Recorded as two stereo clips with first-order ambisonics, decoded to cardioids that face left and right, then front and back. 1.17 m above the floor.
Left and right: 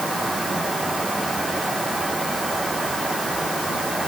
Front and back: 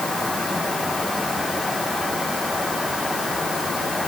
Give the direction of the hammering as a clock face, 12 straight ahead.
No hammering in this recording.